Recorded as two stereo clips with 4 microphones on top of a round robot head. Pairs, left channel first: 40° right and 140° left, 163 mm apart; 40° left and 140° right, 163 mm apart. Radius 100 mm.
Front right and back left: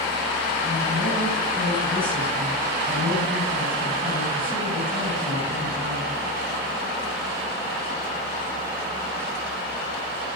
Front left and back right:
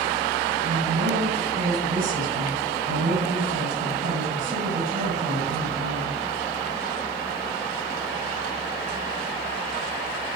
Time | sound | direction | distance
0.6 | a woman speaking | 140° right | 9 m